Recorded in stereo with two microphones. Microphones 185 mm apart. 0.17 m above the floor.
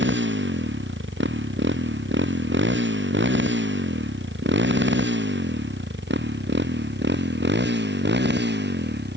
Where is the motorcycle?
85° right; by 9.2 s 70° right (ahead or behind).